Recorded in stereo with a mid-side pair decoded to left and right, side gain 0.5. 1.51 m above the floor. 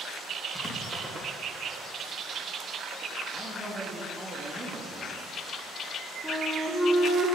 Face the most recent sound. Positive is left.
turn(degrees=-5)